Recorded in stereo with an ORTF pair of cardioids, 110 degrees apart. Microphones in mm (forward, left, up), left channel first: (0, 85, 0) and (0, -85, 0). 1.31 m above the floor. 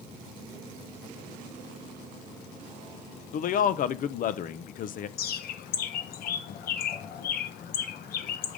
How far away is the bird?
About 1.1 m.